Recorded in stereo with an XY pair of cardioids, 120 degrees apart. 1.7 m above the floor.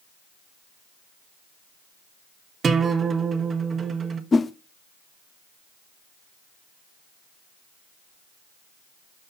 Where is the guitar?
35° right, 1.2 m.